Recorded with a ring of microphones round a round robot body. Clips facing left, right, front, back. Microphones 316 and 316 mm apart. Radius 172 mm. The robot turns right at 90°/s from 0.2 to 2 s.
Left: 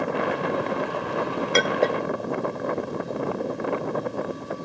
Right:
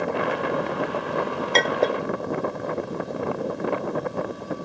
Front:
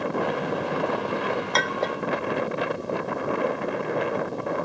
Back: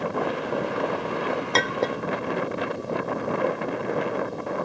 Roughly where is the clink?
Behind.